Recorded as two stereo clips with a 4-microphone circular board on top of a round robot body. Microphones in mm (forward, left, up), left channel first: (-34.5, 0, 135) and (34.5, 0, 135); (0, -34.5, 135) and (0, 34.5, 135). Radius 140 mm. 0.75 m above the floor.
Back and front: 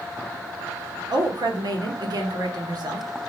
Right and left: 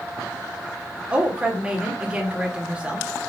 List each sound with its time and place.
1.1 s a woman speaking: 15° left, 1.6 m